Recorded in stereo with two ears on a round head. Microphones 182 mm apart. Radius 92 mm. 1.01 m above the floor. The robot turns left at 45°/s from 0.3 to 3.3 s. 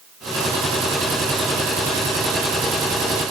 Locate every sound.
Only background noise.